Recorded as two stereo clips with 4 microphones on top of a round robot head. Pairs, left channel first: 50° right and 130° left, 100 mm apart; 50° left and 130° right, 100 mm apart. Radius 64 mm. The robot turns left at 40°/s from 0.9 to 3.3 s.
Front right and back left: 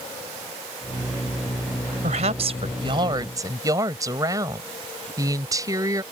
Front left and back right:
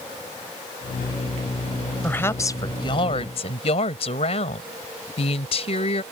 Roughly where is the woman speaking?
Behind left.